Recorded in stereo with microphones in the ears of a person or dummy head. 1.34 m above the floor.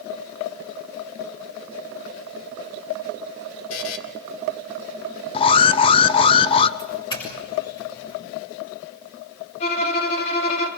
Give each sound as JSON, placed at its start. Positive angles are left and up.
{"t": 3.7, "sound": "a buzzer", "side_deg": 70, "distance_m": 2.0}
{"t": 5.3, "sound": "an alarm", "side_deg": 25, "distance_m": 0.8}
{"t": 6.8, "sound": "a doorbell", "side_deg": 25, "distance_m": 6.5}
{"t": 9.6, "sound": "a violin", "side_deg": 40, "distance_m": 3.5}